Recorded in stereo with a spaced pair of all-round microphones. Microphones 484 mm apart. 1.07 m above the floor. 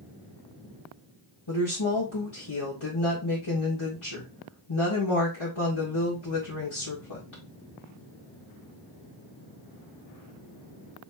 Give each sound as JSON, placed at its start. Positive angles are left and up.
{"t": 1.5, "sound": "a woman speaking", "side_deg": 60, "distance_m": 1.8}